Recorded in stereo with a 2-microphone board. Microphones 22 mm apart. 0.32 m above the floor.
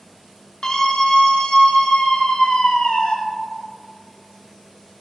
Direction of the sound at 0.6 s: 30° left (ahead or behind).